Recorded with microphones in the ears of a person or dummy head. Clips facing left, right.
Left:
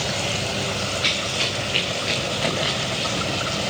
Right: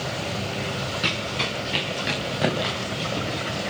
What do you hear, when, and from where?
1.0 s running footsteps: 75° right (ahead or behind), 8.5 m; by 3.7 s 80° right, 10 m